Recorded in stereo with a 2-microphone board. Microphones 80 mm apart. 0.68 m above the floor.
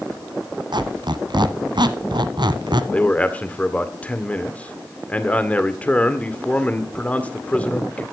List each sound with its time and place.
0.7 s a squeak: 70° right (ahead or behind), 1.1 m
2.9 s a man speaking: 15° left (ahead or behind), 1.9 m